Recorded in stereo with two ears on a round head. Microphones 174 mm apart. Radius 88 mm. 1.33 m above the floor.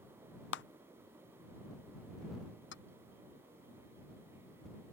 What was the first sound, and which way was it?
A clap, 65° left (ahead or behind).